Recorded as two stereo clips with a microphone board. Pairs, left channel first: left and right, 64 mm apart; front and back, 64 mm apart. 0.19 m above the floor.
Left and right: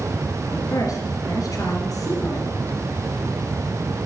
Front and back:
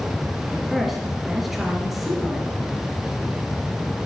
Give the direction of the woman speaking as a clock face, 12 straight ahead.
9 o'clock.